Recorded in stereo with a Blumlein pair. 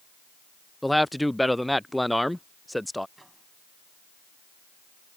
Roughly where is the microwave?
Ahead.